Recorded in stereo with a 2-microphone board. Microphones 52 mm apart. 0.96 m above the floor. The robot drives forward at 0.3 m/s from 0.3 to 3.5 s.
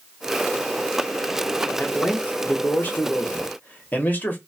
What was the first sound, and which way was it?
A man speaking, 30° left (ahead or behind).